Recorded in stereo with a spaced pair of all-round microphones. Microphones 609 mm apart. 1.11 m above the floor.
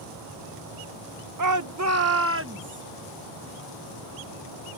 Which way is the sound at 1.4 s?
35° right (ahead or behind).